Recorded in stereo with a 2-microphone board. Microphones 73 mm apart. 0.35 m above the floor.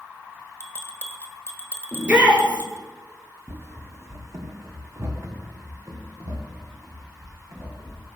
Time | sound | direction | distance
0.6 | a bell | 30° left (ahead or behind) | 1.5 m
1.9 | a shout | 15° right (ahead or behind) | 5 m
3.5 | running footsteps | 35° right (ahead or behind) | 0.7 m